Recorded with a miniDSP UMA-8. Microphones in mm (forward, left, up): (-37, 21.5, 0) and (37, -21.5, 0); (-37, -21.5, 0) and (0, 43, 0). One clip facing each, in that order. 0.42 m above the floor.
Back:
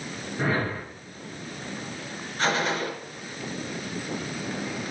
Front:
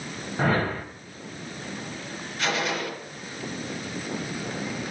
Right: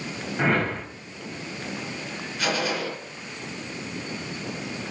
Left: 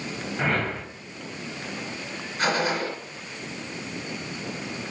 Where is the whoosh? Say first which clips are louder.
Front 3 dB, right 3 dB; 35° right, 1.0 m.